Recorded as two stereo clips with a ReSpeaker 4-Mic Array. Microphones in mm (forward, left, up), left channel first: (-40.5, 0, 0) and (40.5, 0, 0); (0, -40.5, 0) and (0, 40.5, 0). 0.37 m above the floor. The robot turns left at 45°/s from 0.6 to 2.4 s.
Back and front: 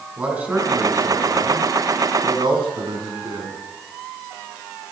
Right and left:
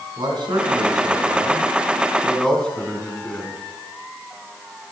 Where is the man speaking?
70° left, 4 m; by 3.6 s 10° right, 4 m.